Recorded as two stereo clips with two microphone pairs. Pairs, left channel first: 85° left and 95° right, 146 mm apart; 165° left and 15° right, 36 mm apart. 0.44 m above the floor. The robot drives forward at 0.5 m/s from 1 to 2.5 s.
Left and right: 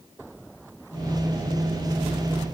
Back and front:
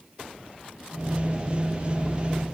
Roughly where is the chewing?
I don't hear chewing.